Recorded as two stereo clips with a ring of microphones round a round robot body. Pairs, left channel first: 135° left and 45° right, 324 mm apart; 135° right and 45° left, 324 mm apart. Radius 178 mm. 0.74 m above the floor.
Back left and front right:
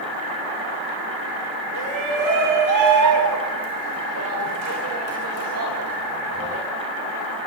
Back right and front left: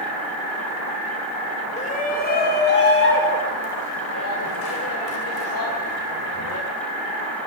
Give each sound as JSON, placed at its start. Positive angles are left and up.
{"t": 1.8, "sound": "a shout", "azimuth_deg": -65, "distance_m": 1.9}